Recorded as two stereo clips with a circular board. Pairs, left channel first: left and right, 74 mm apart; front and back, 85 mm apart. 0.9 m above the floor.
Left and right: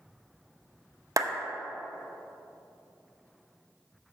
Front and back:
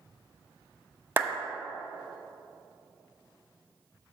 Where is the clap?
120° right, 0.8 m.